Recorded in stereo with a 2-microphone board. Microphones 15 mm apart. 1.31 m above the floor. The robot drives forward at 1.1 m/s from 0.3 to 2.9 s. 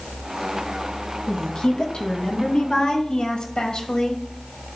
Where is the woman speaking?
75° left (ahead or behind), 2 m; by 4.2 s 55° left (ahead or behind), 2.5 m.